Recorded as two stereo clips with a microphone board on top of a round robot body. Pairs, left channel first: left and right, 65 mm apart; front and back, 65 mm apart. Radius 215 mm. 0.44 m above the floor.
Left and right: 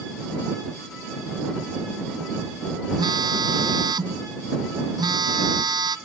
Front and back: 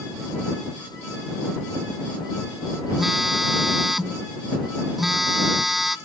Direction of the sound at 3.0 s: 95° right.